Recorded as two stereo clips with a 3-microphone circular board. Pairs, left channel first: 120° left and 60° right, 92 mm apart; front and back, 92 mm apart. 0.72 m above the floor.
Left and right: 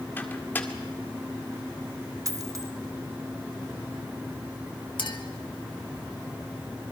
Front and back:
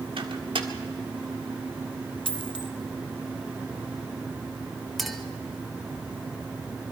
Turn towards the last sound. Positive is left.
turn(degrees=90)